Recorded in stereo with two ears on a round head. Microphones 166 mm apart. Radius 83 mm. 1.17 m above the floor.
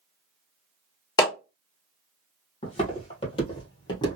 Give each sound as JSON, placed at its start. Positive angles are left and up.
{"t": 1.2, "sound": "a clap", "side_deg": 20, "distance_m": 1.3}
{"t": 2.6, "sound": "footsteps", "side_deg": 35, "distance_m": 1.9}